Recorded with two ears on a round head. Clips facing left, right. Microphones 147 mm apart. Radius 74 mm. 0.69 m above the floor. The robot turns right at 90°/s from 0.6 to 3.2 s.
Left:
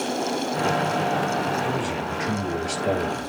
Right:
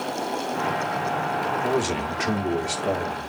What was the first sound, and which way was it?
A man speaking, 100° right.